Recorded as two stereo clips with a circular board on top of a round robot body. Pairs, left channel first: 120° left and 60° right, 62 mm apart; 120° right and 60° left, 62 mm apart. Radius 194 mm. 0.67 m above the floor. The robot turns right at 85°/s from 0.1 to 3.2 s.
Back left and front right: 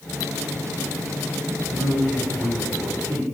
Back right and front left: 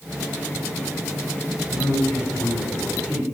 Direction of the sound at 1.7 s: 165° right.